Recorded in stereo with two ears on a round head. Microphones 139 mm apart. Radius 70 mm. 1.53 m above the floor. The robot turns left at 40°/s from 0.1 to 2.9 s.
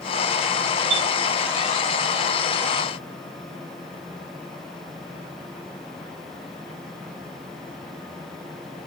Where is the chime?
70° right (ahead or behind), 5.5 m; by 1.1 s 75° right (ahead or behind), 5.5 m.